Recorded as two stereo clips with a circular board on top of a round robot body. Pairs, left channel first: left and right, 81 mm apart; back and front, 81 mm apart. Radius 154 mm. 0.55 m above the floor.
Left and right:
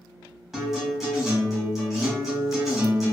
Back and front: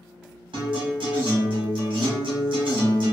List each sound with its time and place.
0.5 s a guitar: straight ahead, 1.1 m